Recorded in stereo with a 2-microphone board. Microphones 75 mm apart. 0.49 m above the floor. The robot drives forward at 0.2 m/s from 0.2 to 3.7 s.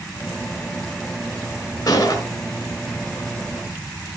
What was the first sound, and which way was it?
A gunshot, 45° left (ahead or behind).